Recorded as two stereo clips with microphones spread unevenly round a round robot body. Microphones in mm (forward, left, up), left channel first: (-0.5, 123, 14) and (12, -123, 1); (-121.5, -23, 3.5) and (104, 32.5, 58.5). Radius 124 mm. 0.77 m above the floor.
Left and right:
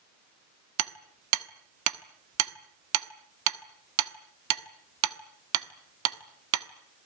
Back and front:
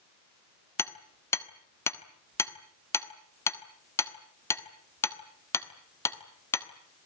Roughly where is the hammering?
Right.